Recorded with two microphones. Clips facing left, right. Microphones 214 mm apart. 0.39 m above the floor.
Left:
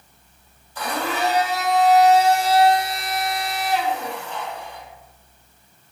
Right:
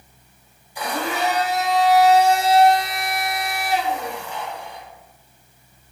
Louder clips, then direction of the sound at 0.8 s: Even; 15° right (ahead or behind).